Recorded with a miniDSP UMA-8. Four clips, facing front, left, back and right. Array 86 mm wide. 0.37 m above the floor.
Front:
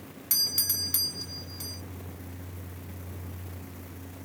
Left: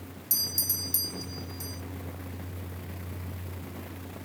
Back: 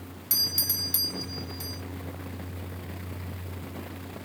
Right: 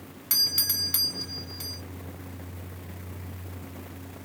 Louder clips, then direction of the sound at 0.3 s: Right 4 dB, back 4 dB; 85° right.